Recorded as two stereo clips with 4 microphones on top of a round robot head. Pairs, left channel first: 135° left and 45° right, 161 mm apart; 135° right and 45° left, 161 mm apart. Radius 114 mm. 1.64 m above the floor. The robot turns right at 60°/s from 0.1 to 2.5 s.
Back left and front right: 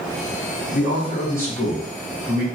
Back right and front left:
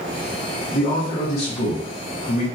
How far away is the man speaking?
About 1.3 m.